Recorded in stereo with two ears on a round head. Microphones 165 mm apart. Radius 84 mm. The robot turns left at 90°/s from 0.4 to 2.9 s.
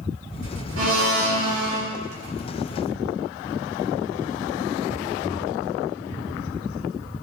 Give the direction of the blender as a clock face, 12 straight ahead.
2 o'clock.